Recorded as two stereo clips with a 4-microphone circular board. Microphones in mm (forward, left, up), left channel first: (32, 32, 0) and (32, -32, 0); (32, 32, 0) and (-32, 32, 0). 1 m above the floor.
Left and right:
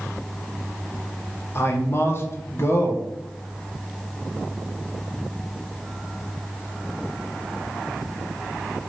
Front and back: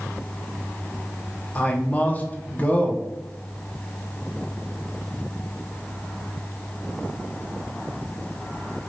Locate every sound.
1.6 s a man speaking: 60° left, 0.6 m